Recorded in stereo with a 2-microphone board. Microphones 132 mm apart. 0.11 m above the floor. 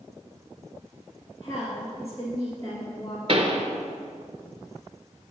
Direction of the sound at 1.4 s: 25° left (ahead or behind).